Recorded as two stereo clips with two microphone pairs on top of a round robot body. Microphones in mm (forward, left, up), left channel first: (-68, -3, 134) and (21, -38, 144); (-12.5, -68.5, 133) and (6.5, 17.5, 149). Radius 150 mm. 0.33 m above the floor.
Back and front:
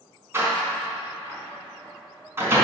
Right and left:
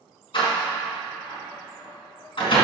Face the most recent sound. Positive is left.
turn(degrees=-85)